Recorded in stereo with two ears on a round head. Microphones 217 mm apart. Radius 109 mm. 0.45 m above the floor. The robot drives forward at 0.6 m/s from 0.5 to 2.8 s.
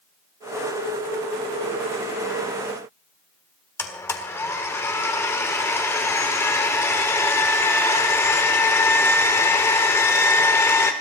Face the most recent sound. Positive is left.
turn(degrees=10)  # may be behind; listen again after turning